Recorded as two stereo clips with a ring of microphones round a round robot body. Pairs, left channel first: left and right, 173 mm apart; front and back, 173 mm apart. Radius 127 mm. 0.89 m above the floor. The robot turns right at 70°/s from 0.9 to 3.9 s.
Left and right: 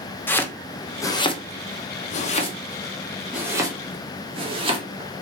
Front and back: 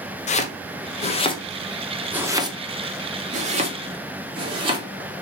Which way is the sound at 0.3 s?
15° left.